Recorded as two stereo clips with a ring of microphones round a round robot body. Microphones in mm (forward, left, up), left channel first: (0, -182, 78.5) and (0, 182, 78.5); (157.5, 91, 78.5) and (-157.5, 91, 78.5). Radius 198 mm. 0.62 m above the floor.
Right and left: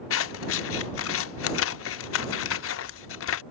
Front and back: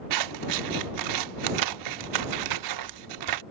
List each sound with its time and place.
0.1 s scissors: 145° right